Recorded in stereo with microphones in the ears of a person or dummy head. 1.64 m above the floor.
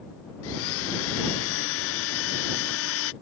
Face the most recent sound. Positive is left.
turn(degrees=85)